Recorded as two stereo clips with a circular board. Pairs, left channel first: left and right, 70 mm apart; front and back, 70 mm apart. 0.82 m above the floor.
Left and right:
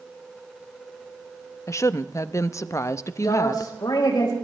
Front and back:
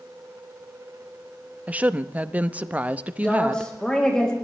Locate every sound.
1.7 s a woman speaking: 115° left, 0.7 m
3.2 s a woman speaking: 80° left, 4 m